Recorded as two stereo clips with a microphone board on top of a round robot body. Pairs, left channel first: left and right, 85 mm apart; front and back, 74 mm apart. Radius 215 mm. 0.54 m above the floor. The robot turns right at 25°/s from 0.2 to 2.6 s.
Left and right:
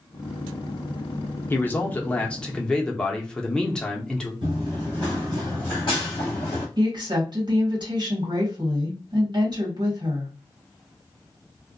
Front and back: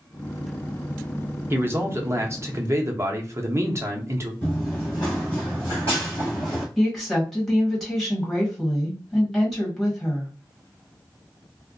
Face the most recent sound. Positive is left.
turn(degrees=-90)